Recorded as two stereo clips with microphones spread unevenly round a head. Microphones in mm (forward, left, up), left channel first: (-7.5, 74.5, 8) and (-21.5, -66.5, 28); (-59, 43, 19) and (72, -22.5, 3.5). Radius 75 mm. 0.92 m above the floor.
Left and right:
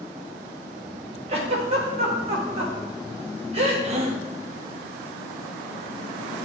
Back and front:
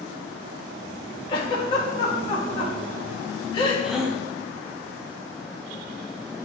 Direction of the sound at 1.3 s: 145° right.